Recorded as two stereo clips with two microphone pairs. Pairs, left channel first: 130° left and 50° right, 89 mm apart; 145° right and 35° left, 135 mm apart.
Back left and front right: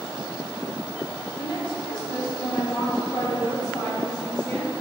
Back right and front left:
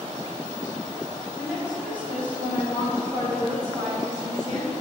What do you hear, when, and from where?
1.4 s a woman speaking: 120° left, 3 m; by 4.7 s 80° left, 2.5 m